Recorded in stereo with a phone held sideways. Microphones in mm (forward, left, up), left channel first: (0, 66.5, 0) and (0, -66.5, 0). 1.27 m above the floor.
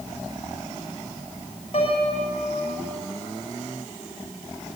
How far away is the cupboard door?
I don't hear a cupboard door.